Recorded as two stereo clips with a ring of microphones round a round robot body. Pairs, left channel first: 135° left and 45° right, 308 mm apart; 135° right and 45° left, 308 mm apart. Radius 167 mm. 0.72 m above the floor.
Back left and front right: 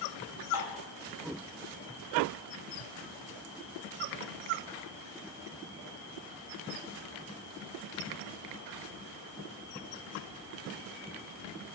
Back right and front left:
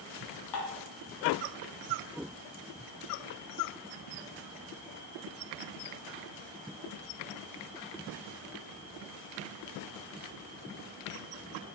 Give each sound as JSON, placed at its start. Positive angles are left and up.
{"t": 0.5, "sound": "dishes clattering", "azimuth_deg": -120, "distance_m": 5.5}